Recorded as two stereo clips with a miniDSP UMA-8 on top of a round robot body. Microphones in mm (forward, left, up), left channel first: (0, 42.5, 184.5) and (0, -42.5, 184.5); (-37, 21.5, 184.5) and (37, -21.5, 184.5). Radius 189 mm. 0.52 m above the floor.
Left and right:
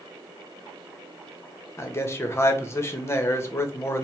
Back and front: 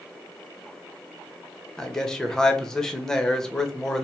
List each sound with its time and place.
1.8 s a man speaking: 75° left, 1.0 m